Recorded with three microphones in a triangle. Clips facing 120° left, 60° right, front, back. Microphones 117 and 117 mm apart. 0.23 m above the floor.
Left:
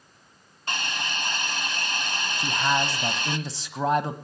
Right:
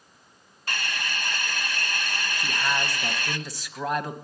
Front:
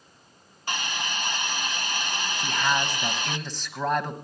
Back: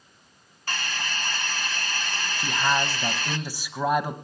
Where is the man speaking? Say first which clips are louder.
Left 4 dB, back 2 dB; 115° left, 1.0 m.